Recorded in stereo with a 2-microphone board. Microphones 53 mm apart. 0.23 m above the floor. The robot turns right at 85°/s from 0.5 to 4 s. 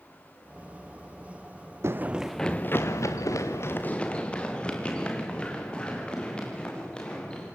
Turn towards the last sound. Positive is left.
turn(degrees=20)  # may be behind; listen again after turning